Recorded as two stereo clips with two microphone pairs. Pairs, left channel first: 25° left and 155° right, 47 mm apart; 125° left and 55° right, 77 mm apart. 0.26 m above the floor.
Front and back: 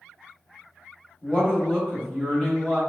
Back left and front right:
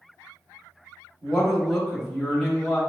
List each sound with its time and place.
1.2 s a woman speaking: 30° left, 0.9 m